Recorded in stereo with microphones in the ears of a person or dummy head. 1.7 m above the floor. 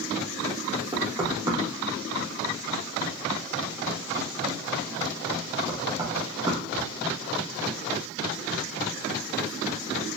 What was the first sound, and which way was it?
Knocking, 25° right (ahead or behind).